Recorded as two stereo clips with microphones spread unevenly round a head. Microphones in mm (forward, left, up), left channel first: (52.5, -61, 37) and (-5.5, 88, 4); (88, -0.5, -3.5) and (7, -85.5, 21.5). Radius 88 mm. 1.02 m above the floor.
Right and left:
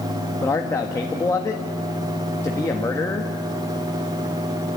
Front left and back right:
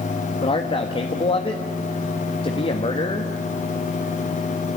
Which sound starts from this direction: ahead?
A man speaking, at 0.4 s.